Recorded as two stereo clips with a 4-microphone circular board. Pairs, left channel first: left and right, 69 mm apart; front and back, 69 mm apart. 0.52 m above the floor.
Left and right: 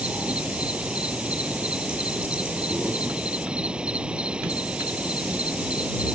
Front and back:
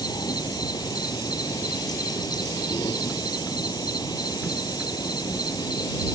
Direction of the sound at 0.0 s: 15° right.